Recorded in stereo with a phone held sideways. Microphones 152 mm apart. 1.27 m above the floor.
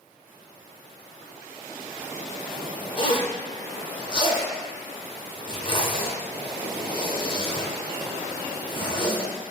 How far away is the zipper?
About 0.6 m.